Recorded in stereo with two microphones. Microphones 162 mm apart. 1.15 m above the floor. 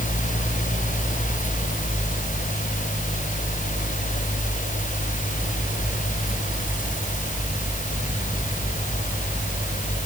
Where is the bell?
No bell in this recording.